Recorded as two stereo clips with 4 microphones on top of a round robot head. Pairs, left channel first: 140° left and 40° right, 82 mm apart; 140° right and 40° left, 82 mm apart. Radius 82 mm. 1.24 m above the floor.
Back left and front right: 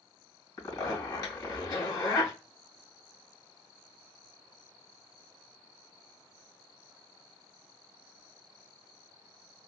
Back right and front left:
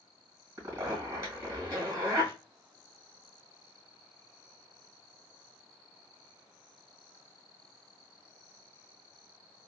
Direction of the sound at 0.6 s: 100° left.